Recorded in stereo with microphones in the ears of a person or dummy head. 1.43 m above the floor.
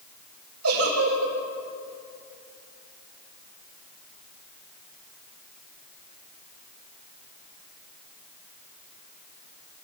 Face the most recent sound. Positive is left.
turn(degrees=-90)